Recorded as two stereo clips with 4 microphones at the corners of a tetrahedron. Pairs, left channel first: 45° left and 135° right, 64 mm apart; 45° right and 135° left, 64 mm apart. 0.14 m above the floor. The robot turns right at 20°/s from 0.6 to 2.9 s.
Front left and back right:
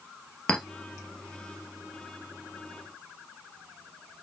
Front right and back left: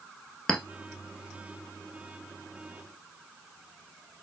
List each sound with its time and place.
0.5 s a clink: 5° left, 0.7 m